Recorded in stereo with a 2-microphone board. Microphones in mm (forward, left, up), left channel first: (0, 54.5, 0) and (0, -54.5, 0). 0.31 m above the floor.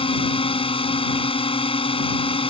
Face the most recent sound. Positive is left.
turn(degrees=65)  # may be behind; listen again after turning